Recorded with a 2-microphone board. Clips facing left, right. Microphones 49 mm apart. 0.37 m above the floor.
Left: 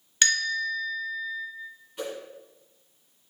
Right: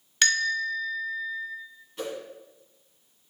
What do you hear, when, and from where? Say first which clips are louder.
0.2 s a bell: right 1 dB; centre (ahead or behind), 1.1 m
2.0 s a whoosh: even; 10° left (ahead or behind), 1.6 m